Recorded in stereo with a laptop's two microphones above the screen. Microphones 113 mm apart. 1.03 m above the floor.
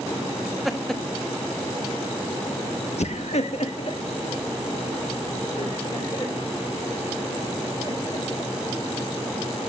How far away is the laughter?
About 1.5 m.